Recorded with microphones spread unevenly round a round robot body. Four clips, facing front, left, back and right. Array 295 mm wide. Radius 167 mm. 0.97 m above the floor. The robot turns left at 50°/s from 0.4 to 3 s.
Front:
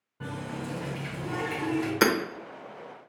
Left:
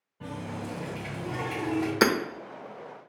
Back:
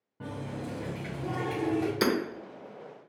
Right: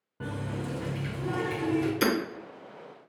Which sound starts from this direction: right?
A running tap, at 0.2 s.